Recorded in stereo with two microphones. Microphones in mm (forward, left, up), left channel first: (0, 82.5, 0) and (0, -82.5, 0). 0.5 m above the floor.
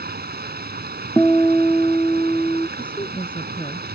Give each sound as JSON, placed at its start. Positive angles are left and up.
{"t": 0.0, "sound": "running water", "side_deg": -80}
{"t": 1.2, "sound": "a guitar", "side_deg": 10}
{"t": 2.8, "sound": "a woman speaking", "side_deg": 30}